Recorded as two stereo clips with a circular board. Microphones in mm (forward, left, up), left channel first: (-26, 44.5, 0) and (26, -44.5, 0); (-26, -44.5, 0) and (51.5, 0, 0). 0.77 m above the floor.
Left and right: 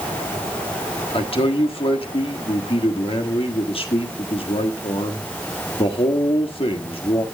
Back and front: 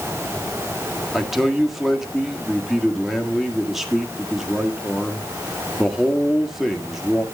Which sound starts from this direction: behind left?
A man speaking, at 1.1 s.